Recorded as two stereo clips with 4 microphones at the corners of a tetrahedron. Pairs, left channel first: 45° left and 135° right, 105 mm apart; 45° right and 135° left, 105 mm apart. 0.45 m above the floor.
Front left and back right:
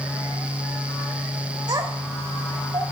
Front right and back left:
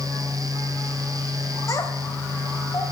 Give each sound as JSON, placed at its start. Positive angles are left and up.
{"t": 1.7, "sound": "a child speaking", "azimuth_deg": -95, "distance_m": 1.5}